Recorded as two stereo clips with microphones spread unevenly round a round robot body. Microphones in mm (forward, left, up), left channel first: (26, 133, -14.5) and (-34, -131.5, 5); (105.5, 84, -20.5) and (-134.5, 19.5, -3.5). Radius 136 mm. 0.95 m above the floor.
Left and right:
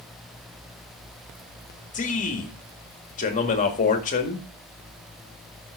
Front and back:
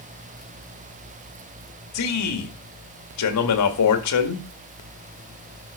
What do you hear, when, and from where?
1.9 s a man speaking: 15° left, 1.9 m